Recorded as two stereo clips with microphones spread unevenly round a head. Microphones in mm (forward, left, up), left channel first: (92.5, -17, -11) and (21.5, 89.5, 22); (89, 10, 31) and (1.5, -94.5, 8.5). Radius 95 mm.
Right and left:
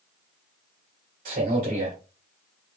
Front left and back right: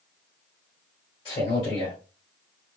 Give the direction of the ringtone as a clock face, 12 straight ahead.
No ringtone in this recording.